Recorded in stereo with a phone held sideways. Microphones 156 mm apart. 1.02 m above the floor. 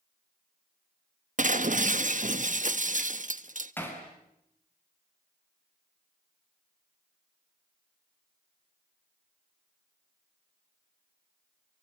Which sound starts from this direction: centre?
Hammering, at 3.8 s.